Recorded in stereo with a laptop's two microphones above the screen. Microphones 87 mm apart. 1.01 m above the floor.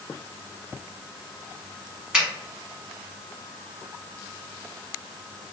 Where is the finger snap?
10° right (ahead or behind), 1.0 m.